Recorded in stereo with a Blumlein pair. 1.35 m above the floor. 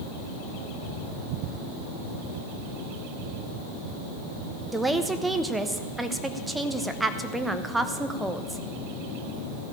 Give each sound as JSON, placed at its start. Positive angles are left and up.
{"t": 4.7, "sound": "a woman speaking", "azimuth_deg": -5, "distance_m": 0.9}